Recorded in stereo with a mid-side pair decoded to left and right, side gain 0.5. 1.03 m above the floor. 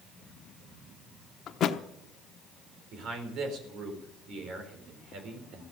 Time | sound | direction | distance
1.5 | a thud | 60° left | 1.0 m
2.9 | a man speaking | 70° right | 4.5 m